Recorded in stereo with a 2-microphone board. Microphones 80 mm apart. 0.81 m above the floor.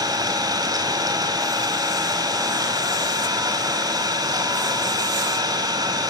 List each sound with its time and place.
0.0 s an engine running: 55° right (ahead or behind), 4 m